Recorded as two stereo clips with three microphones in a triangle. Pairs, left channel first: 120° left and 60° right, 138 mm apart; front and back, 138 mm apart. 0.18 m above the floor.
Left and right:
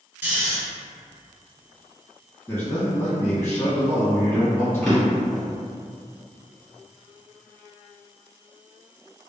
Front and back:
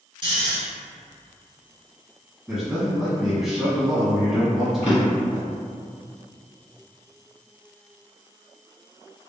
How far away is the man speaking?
About 1.3 m.